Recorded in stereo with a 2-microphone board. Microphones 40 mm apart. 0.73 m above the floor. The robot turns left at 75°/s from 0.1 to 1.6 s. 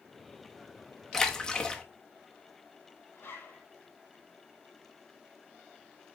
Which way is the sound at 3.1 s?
70° left (ahead or behind).